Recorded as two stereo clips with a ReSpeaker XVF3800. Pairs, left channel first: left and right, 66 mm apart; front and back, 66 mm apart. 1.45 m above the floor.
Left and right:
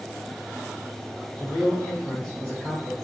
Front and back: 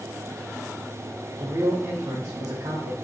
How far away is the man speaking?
About 1.1 m.